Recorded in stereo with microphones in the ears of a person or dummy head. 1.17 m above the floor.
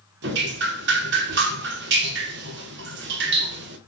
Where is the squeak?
No squeak in this recording.